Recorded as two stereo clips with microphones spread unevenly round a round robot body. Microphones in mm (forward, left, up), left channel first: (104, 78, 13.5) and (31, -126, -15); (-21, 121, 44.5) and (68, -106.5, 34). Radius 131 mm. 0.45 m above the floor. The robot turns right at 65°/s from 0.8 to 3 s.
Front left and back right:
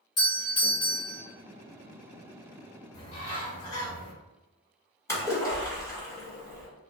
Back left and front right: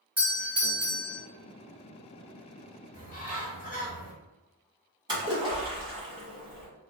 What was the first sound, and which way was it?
A doorbell, 5° left.